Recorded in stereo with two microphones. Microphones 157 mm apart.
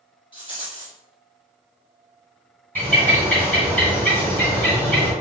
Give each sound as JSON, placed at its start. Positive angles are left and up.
{"t": 0.3, "sound": "a rattle", "side_deg": 30, "distance_m": 1.9}
{"t": 2.8, "sound": "a bird", "side_deg": 10, "distance_m": 1.6}